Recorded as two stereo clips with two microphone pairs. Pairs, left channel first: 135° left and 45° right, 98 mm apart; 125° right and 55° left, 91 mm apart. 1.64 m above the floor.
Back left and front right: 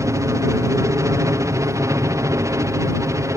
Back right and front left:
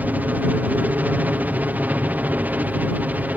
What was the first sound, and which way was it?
A helicopter, 5° right.